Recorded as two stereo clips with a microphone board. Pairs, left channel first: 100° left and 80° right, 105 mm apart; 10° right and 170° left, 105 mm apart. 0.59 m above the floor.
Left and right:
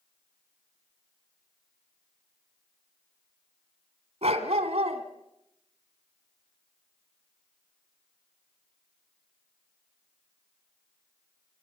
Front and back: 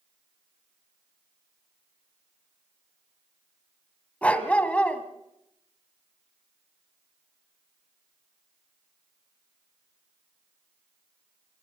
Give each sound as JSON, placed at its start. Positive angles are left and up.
{"t": 4.2, "sound": "a dog barking", "azimuth_deg": -90, "distance_m": 1.9}